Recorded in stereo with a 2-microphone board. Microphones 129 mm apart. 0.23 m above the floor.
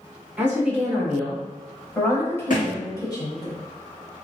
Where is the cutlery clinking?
I don't hear cutlery clinking.